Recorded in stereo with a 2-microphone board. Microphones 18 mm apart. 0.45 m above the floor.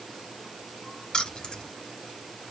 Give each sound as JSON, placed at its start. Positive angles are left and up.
{"t": 1.1, "sound": "keys jangling", "side_deg": 40, "distance_m": 1.0}